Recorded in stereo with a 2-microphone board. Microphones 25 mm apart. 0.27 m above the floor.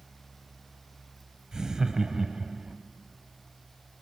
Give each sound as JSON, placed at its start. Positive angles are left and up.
{"t": 1.5, "sound": "laughter", "side_deg": -25, "distance_m": 1.2}